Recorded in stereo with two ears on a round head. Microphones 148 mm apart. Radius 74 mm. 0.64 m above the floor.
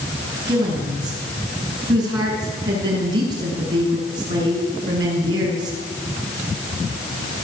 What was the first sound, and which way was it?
A woman speaking, 25° right (ahead or behind).